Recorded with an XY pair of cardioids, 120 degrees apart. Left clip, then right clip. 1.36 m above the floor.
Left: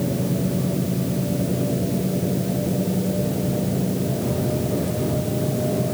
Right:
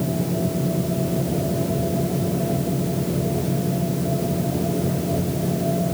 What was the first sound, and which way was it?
Only background noise.